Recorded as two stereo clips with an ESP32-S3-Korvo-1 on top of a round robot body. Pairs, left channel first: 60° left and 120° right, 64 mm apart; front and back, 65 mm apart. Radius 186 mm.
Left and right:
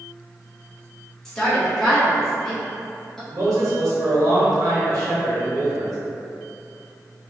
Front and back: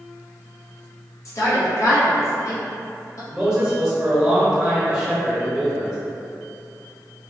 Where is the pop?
No pop in this recording.